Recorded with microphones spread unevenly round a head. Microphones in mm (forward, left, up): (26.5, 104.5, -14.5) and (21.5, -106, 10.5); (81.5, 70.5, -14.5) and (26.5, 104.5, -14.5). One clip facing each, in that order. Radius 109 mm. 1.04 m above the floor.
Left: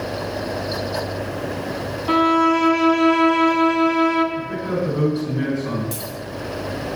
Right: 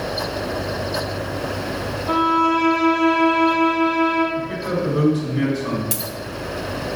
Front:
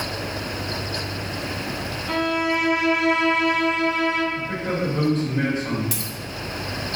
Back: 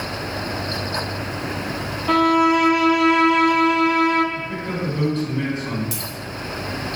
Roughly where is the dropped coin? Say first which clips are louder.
Right 1 dB, back 1 dB; ahead right.